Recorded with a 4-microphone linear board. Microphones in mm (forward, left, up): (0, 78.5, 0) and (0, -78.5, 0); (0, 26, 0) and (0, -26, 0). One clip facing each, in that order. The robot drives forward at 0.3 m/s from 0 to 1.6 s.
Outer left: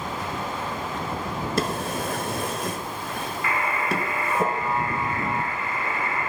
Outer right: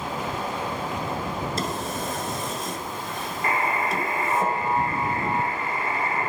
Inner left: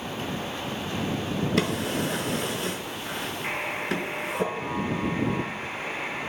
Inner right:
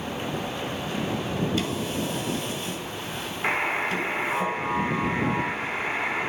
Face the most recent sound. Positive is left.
turn(degrees=-35)  # may be behind; listen again after turning